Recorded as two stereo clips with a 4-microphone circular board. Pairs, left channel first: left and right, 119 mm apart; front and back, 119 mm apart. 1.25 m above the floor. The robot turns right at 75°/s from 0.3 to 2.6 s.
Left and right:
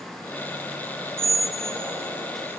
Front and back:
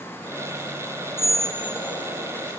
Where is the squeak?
100° right, 1.1 m; by 2.3 s 20° right, 1.1 m.